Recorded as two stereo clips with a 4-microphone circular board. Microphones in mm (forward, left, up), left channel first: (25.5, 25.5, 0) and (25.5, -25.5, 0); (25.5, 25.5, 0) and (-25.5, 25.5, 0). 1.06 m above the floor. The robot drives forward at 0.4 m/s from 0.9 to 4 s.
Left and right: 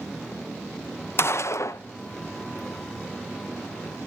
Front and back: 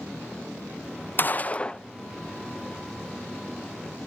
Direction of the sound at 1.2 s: 50° left.